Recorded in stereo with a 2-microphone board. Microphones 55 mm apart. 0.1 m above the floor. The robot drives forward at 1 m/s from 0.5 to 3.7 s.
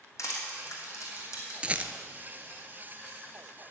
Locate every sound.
0.2 s crushing: 70° left (ahead or behind), 3 m; by 1.5 s 75° left (ahead or behind), 3 m
1.6 s a rattle: 20° right (ahead or behind), 0.6 m; by 1.9 s 30° right (ahead or behind), 0.5 m